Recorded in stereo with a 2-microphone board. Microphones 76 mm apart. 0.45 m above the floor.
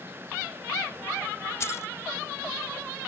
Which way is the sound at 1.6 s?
35° left (ahead or behind).